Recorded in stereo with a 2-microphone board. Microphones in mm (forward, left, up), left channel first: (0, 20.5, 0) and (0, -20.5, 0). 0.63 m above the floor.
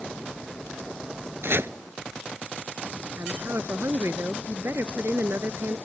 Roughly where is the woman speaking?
Right.